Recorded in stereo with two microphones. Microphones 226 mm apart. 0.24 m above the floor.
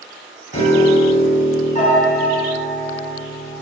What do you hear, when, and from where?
0.5 s a piano: 30° left (ahead or behind), 1.1 m